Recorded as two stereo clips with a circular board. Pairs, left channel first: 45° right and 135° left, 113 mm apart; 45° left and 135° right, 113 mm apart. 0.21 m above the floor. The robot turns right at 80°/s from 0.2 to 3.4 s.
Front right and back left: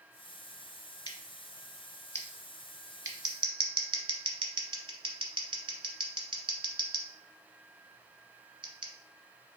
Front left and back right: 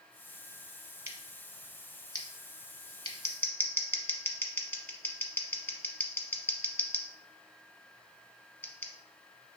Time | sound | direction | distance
1.1 | scissors | 75° right | 0.9 m